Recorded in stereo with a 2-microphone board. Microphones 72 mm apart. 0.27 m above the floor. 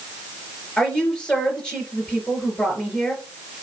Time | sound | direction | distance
0.8 | a woman speaking | 10° left (ahead or behind) | 3.5 m